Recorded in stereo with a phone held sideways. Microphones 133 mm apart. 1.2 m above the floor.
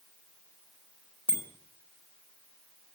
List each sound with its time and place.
1.3 s a bicycle bell: 35° left (ahead or behind), 4 m